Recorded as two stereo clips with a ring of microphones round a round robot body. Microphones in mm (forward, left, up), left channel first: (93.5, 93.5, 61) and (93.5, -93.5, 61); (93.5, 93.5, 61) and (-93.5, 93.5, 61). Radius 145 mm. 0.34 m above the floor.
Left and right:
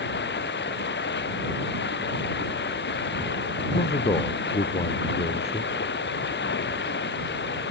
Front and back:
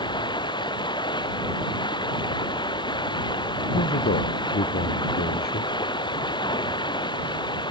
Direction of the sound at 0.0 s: 65° left.